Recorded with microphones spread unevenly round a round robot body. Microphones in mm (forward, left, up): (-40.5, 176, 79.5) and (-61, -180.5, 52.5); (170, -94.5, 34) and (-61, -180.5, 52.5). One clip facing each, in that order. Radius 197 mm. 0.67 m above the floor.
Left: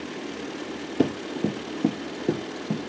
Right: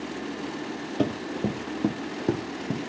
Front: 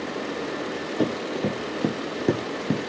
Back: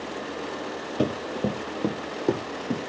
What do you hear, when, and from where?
1.0 s running footsteps: 160° left, 0.8 m; by 2.9 s 30° right, 0.8 m